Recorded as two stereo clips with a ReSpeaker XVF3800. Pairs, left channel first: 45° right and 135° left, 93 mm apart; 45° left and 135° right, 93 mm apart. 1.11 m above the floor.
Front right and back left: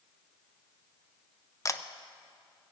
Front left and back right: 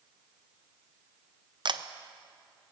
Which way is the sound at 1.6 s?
100° right.